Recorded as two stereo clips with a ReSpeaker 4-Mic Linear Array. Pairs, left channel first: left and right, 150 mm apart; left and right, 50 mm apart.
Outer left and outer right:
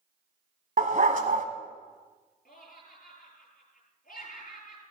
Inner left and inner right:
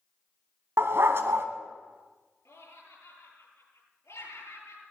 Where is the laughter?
65° left (ahead or behind), 8.5 m.